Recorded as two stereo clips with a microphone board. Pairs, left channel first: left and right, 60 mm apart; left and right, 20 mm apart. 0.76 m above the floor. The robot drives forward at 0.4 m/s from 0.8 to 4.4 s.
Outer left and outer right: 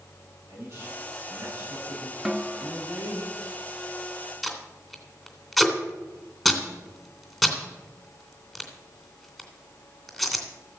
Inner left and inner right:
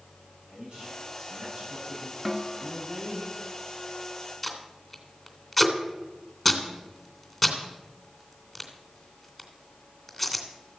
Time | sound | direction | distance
0.5 | a man speaking | 50° right (ahead or behind) | 8 m
2.2 | a snare drum | 10° right (ahead or behind) | 0.8 m
4.4 | tape being pulled | centre (ahead or behind) | 3 m